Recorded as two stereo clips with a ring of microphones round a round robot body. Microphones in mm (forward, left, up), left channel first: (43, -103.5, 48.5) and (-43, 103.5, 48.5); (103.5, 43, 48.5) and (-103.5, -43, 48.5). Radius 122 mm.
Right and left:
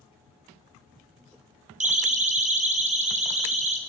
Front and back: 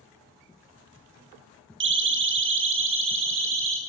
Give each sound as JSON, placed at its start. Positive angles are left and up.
{"t": 1.8, "sound": "a siren", "azimuth_deg": 170, "distance_m": 3.0}